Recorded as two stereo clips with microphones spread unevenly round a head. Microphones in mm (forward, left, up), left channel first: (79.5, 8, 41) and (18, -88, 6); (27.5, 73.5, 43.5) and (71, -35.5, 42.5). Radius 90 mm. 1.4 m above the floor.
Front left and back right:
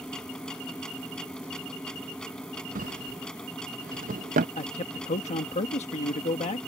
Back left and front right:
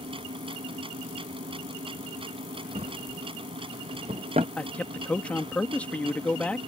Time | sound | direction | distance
0.0 | a machine running | 25° right | ?
2.8 | a drawer | 125° right | ?
4.6 | a man speaking | 35° left | ?